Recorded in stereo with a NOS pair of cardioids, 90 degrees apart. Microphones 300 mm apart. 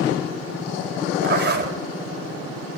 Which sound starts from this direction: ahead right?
A zipper, at 1.2 s.